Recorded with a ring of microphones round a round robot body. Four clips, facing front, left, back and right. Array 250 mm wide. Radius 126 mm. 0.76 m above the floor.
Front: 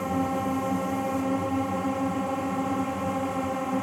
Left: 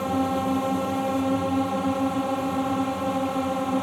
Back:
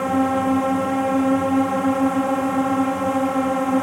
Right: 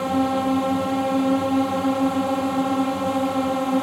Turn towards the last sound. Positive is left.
turn(degrees=-155)